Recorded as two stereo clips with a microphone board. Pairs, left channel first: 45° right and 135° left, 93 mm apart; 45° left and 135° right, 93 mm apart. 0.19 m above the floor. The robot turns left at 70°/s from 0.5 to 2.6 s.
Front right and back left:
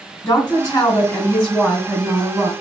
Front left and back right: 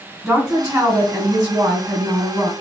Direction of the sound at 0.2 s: 55° right.